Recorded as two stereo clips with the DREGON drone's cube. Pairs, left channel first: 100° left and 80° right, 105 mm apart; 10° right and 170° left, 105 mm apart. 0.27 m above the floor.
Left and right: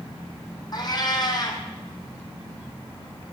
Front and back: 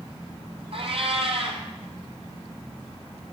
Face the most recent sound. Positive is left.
turn(degrees=150)